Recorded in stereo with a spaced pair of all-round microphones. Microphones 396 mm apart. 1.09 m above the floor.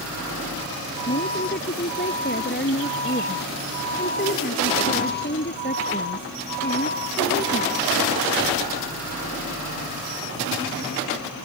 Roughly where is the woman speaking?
Left.